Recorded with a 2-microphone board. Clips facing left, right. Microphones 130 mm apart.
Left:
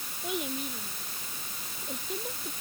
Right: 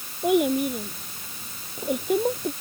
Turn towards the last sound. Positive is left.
turn(degrees=-70)  # may be behind; listen again after turning